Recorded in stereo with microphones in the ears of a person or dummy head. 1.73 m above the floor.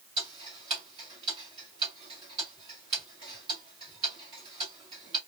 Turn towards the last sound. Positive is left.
turn(degrees=-20)  # may be behind; listen again after turning